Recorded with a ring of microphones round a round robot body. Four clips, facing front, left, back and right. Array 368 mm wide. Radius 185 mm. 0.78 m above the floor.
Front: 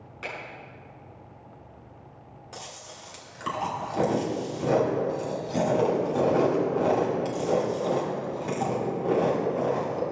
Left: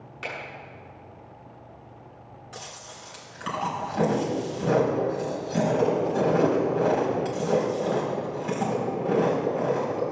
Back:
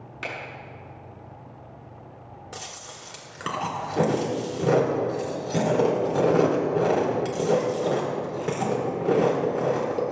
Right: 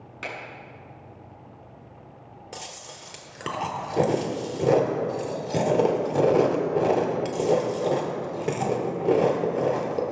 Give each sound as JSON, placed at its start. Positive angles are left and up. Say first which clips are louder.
{"t": 0.2, "sound": "a finger snap", "louder": "even, back 3 dB", "azimuth_deg": -135, "distance_m": 6.5}
{"t": 2.5, "sound": "chewing", "louder": "right 2 dB, even", "azimuth_deg": -120, "distance_m": 2.5}